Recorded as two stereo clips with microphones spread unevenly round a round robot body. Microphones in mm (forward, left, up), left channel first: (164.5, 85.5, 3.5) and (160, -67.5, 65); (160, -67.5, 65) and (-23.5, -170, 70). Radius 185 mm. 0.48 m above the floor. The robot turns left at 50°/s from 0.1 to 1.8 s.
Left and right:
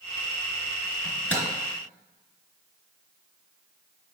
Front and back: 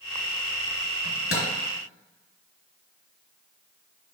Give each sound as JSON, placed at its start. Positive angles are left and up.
{"t": 1.0, "sound": "a microwave", "azimuth_deg": 5, "distance_m": 3.0}